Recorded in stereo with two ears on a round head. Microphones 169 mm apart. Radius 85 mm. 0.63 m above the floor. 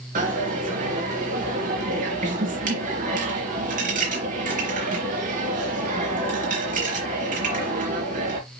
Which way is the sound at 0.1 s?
45° right (ahead or behind).